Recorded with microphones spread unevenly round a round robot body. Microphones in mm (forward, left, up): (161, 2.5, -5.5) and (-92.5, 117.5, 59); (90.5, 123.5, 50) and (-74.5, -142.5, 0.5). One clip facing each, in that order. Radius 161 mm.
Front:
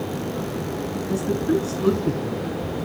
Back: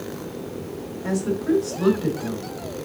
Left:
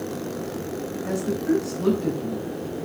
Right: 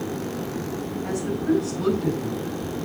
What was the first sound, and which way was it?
A woman speaking, 170° left.